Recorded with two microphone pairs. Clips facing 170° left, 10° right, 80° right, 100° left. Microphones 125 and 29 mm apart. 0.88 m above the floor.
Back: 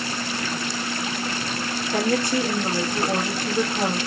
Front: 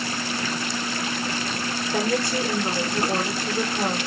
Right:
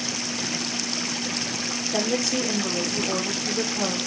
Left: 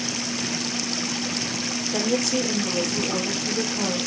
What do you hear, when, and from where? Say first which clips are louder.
1.9 s a woman speaking: back 2 dB, left 1 dB; 160° right, 1.5 m